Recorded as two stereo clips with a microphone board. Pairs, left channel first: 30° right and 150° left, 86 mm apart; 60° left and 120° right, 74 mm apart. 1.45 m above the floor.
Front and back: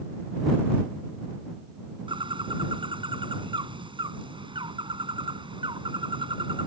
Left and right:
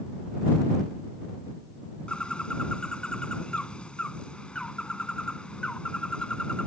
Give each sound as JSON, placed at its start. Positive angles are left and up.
{"t": 2.1, "sound": "a bird", "azimuth_deg": 140}